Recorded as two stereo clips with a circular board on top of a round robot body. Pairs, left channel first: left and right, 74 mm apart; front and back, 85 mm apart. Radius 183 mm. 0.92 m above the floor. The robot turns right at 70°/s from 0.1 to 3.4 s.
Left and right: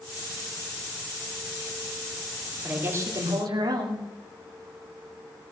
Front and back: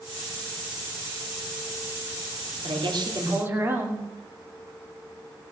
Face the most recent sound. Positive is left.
turn(degrees=-115)